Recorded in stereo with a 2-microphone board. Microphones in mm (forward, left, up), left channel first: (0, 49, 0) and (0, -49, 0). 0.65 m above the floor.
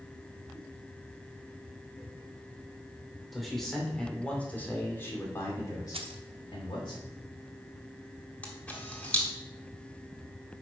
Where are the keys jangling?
65° right (ahead or behind), 0.8 m.